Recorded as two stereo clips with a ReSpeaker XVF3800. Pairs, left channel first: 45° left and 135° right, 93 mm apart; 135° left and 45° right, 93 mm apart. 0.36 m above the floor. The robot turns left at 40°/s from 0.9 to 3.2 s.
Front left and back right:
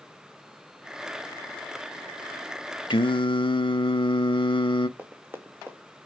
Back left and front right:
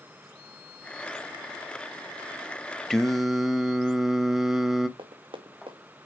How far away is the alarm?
No alarm in this recording.